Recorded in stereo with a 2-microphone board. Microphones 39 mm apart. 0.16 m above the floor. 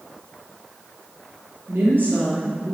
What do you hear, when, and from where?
1.7 s a woman speaking: 60° right (ahead or behind), 4 m